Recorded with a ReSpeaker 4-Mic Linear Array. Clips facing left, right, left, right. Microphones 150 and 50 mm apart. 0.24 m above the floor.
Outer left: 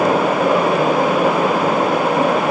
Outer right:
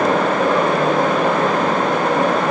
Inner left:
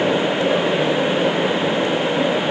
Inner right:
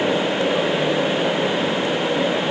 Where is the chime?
No chime in this recording.